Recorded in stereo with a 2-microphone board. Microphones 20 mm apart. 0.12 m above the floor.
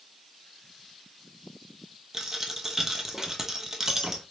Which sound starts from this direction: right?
A dropped coin, at 2.1 s.